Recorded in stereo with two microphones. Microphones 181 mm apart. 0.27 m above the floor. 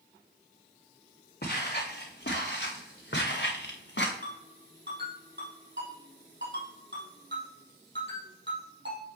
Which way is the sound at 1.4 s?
60° left (ahead or behind).